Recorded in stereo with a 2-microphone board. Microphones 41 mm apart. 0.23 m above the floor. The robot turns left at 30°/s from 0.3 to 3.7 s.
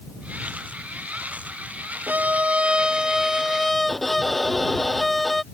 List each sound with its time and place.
2.1 s a violin: 135° right; by 5.4 s 175° left